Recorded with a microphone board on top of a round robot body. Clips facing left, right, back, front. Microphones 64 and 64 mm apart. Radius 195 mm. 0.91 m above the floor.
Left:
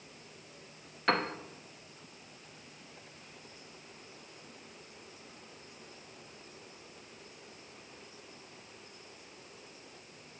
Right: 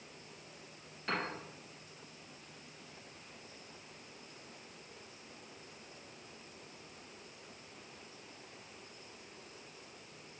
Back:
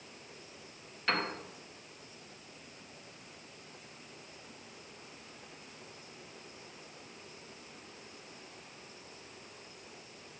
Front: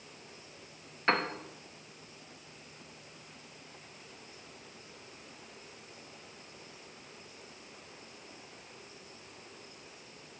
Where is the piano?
60° left, 1.1 m.